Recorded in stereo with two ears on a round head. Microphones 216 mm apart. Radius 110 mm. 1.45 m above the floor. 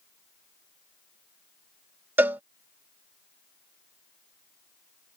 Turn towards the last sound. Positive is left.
turn(degrees=-10)  # may be behind; listen again after turning